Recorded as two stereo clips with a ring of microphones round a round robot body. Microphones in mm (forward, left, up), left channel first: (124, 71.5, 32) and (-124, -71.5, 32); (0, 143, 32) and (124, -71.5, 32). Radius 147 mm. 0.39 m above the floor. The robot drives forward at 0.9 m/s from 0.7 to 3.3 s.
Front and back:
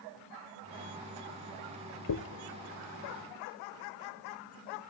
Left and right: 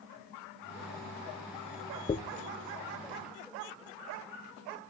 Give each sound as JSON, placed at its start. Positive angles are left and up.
{"t": 2.1, "sound": "a dropped coin", "azimuth_deg": 50, "distance_m": 0.7}